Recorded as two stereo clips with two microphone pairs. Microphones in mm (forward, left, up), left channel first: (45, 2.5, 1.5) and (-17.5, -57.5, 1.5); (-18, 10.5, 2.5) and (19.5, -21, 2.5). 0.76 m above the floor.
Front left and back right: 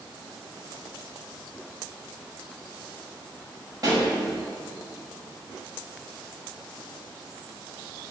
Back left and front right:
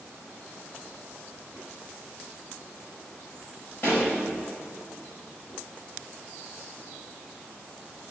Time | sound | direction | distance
3.8 | a pop | 175° left | 5.5 m